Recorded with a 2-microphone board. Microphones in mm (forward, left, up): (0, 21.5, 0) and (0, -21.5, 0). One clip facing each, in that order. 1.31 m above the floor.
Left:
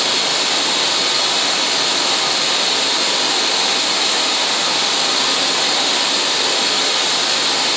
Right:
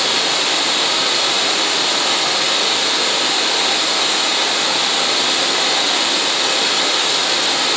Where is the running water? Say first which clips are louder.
Right 1 dB; 30° right (ahead or behind), 1.9 m.